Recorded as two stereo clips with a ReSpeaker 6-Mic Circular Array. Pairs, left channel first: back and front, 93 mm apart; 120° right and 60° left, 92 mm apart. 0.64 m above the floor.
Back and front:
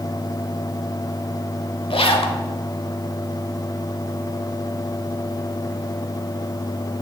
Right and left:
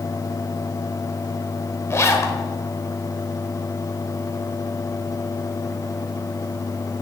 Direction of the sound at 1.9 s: 175° right.